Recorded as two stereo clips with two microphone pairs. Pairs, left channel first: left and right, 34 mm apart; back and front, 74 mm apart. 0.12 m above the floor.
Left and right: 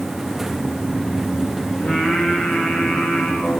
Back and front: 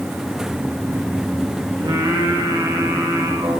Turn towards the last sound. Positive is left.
turn(degrees=15)